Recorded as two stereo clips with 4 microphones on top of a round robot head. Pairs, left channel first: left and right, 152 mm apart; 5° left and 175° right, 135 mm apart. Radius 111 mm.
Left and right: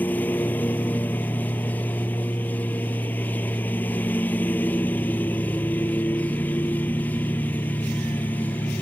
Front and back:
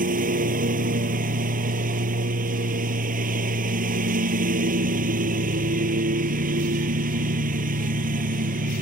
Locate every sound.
0.0 s a lawn mower: 170° left